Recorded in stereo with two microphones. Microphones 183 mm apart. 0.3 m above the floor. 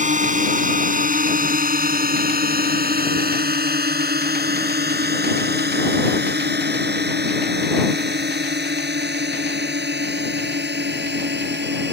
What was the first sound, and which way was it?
A drone, 45° right (ahead or behind).